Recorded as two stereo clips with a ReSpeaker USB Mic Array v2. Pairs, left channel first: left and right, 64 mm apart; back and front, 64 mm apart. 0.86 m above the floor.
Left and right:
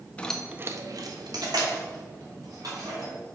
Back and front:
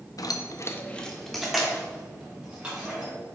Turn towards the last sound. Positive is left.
turn(degrees=-75)